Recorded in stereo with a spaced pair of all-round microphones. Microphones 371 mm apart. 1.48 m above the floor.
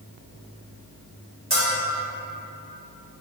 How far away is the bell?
About 1.6 m.